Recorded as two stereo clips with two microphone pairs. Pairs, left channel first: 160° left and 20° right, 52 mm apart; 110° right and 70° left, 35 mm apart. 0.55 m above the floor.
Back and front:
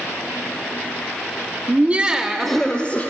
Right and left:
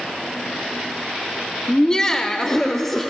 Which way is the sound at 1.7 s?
50° right.